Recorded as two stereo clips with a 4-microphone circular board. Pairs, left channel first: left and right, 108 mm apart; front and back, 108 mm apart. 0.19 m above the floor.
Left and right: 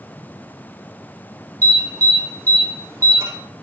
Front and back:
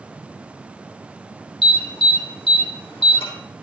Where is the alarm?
30° right, 5.5 m.